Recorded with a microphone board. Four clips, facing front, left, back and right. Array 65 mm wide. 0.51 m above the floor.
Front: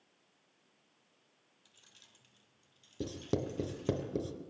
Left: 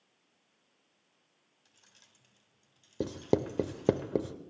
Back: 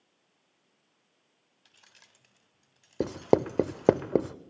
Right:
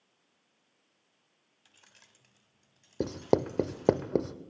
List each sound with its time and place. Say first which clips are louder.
1.6 s keys jangling: right 5 dB, back 6 dB; 130° right, 0.8 m; by 4.0 s 155° right, 4 m
3.0 s writing: right 2 dB, back 12 dB; 170° right, 0.5 m